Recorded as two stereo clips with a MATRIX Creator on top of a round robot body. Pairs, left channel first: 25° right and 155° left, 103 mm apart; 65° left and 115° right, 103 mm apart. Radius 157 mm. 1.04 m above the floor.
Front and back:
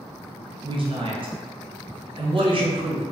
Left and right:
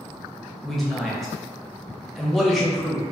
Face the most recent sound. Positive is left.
turn(degrees=155)